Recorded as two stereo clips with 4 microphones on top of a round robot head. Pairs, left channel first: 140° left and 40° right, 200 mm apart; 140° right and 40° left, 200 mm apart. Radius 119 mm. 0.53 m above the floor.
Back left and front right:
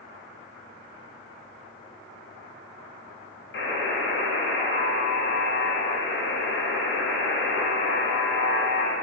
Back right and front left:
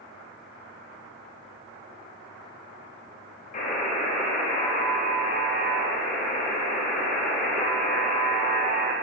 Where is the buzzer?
170° left, 1.6 m.